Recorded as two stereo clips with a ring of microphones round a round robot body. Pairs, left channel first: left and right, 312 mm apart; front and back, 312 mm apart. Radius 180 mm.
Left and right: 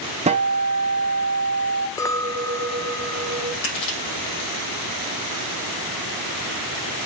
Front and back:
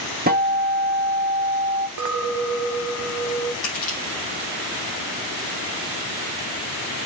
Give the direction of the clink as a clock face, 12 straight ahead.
6 o'clock.